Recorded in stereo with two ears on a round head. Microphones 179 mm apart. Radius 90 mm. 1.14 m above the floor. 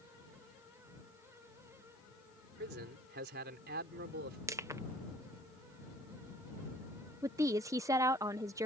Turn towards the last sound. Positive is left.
turn(degrees=-15)  # may be behind; listen again after turning